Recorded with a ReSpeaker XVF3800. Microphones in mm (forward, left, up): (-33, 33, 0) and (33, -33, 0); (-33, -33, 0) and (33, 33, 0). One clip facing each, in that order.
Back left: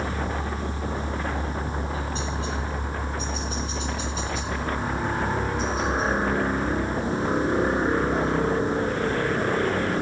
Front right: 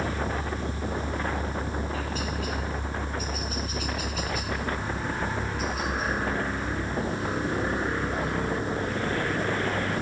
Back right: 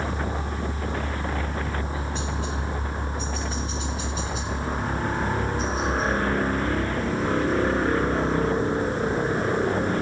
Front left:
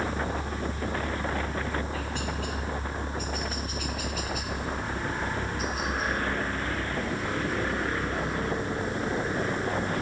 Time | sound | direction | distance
0.0 | a helicopter | 175° left | ?